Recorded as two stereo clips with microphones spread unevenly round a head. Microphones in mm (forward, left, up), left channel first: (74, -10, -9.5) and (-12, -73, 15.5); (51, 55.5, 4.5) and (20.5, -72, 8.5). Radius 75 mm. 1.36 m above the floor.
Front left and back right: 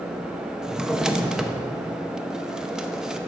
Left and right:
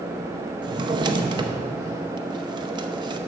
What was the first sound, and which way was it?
A drawer, 80° right.